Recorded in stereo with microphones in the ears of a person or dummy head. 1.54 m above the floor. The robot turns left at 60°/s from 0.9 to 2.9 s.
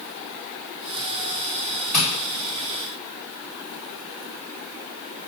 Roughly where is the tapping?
Centre.